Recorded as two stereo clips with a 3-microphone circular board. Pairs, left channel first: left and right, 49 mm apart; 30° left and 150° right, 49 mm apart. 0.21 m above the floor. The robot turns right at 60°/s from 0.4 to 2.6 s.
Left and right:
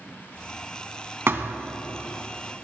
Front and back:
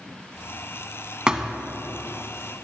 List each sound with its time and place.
1.3 s a thud: 80° right, 0.9 m; by 1.5 s 65° right, 0.9 m